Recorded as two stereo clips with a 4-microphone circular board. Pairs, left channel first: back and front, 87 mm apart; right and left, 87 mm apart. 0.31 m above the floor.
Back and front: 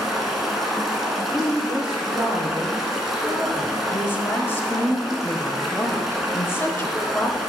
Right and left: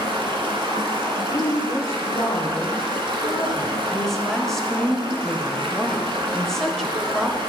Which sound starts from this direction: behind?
A woman speaking, at 3.9 s.